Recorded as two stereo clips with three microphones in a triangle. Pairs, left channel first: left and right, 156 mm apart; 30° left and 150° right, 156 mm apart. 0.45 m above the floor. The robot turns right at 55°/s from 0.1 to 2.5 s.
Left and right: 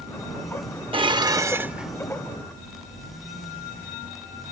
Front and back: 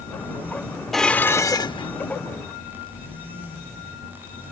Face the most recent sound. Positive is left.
turn(degrees=25)